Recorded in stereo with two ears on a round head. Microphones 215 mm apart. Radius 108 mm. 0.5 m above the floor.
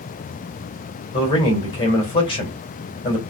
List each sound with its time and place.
1.1 s a man speaking: 25° left (ahead or behind), 2.5 m